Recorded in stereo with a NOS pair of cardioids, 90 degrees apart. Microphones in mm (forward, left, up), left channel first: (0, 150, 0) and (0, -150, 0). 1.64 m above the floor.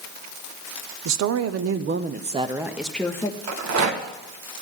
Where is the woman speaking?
70° right, 0.9 m; by 3.4 s 10° left, 1.0 m.